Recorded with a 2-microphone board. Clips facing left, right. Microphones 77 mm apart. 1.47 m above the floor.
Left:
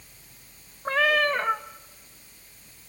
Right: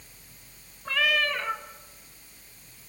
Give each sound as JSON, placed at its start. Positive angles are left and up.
{"t": 0.8, "sound": "a cat meowing", "side_deg": 35, "distance_m": 0.8}